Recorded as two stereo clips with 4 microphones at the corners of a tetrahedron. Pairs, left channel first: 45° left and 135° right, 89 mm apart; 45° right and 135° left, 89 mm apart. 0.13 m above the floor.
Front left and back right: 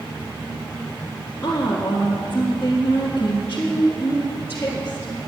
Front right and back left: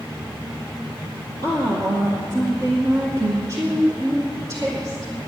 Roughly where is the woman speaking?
Left.